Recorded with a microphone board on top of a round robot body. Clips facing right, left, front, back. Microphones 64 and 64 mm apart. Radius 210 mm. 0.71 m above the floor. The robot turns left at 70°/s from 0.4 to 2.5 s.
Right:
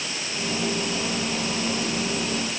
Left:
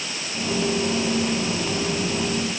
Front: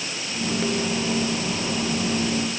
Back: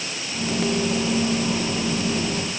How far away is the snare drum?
I don't hear a snare drum.